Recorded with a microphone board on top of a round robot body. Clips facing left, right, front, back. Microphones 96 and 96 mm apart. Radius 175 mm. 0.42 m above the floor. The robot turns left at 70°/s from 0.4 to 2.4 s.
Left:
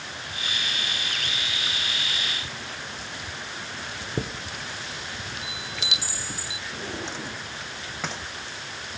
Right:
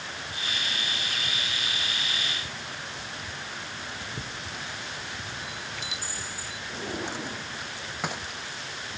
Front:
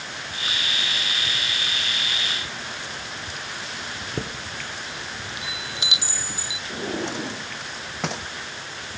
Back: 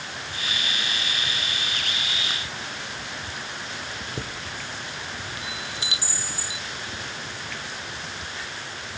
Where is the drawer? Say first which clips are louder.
Right 1 dB, front 8 dB; 15° right.